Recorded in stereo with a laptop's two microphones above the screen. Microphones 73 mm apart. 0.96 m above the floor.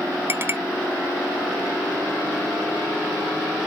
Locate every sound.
0.3 s a clink: 30° right (ahead or behind)